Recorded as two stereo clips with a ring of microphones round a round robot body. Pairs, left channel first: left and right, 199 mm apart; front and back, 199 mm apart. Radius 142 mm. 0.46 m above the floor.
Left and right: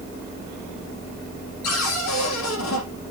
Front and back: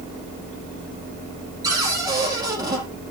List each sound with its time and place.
1.6 s a cupboard door: 105° left, 5 m